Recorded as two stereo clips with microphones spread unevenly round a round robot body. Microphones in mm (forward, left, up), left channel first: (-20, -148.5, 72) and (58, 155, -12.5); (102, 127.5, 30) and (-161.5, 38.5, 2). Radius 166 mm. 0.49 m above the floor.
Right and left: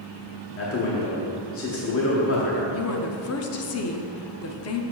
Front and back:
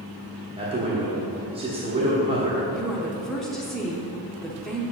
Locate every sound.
0.6 s a man speaking: 130° right, 1.1 m
2.7 s a woman speaking: 80° right, 0.7 m